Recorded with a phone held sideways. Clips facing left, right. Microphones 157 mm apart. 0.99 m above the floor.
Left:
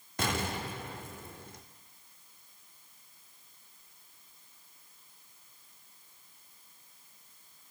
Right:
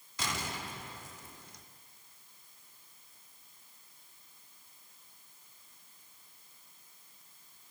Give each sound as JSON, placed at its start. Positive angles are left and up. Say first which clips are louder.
{"t": 0.2, "sound": "an explosion", "louder": "left 6 dB", "side_deg": 60, "distance_m": 0.9}